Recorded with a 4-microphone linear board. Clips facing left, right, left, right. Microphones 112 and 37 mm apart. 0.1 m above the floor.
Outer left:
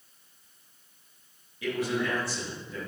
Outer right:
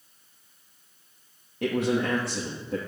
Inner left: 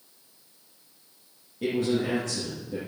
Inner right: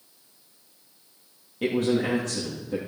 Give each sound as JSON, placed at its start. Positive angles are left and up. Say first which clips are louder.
{"t": 1.6, "sound": "a man speaking", "louder": "outer right 4 dB, inner right 2 dB", "side_deg": -60, "distance_m": 3.0}